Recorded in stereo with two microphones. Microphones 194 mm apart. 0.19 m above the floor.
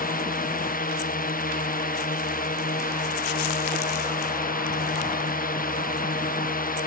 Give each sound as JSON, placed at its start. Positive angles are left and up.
{"t": 0.0, "sound": "a drone", "side_deg": 45}